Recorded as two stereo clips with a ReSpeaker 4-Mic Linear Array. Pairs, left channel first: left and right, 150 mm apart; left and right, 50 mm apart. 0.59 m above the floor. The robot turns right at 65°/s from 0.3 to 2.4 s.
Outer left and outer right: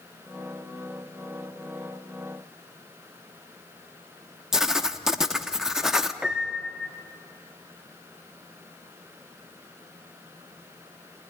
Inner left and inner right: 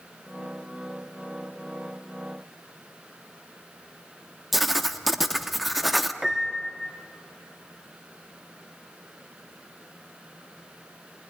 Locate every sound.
4.5 s writing: 5° right (ahead or behind), 0.9 m
6.2 s a piano: 5° right (ahead or behind), 1.0 m